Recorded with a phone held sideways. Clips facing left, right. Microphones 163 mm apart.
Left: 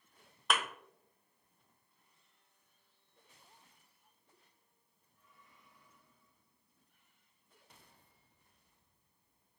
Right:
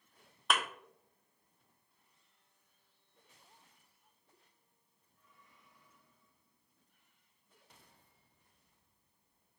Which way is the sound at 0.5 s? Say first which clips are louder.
Right 1 dB; centre (ahead or behind).